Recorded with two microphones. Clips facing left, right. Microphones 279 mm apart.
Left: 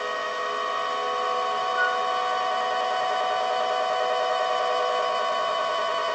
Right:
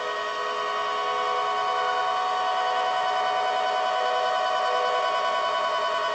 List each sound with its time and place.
1.8 s a flute: 10° left (ahead or behind), 3 m